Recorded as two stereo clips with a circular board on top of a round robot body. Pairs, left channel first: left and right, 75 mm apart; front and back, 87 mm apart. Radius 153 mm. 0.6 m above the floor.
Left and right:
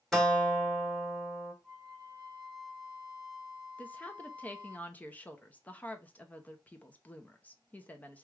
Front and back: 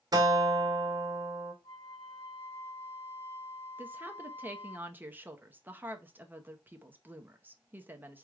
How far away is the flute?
About 1.8 m.